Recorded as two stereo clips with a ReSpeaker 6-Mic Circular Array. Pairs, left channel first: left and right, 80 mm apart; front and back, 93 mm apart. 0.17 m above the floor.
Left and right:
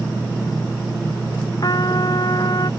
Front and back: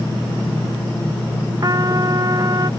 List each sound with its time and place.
1.6 s a trumpet: 130° left